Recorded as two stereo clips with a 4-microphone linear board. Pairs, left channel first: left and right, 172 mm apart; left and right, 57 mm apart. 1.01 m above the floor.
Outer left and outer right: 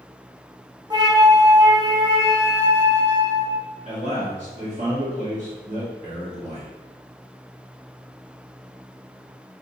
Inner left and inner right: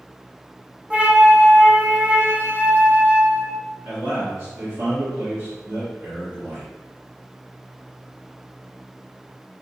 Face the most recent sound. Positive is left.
turn(degrees=-45)  # may be behind; listen again after turning